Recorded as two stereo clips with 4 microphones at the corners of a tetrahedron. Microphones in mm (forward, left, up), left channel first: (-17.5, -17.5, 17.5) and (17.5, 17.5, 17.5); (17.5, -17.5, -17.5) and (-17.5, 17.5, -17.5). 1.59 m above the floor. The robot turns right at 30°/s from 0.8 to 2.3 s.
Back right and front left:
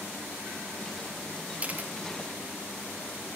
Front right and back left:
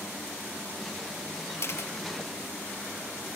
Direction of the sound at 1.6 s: 15° right.